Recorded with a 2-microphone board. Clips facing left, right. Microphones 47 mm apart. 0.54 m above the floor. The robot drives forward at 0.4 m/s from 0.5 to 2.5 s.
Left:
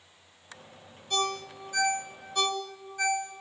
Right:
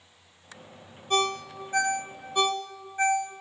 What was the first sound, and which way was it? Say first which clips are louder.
A ringtone: right 4 dB; 40° right (ahead or behind).